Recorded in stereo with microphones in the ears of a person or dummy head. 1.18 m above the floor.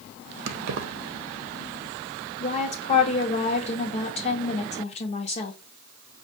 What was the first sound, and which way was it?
Keys jangling, 65° right (ahead or behind).